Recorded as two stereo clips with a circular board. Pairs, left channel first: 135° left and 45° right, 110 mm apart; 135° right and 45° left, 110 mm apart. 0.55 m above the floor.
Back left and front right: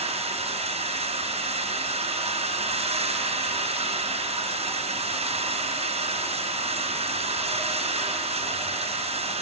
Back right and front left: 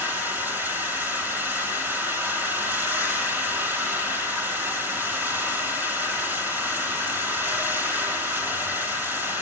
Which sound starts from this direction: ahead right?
Running water, at 0.0 s.